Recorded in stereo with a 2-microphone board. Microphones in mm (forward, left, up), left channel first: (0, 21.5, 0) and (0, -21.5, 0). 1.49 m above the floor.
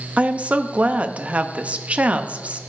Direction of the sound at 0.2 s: 30° right (ahead or behind).